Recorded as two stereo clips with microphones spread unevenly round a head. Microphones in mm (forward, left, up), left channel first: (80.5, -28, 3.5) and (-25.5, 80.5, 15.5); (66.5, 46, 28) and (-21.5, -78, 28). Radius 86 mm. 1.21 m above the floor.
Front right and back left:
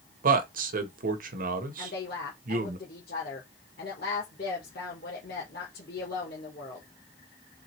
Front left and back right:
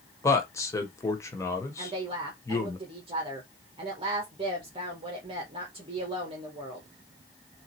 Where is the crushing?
I don't hear crushing.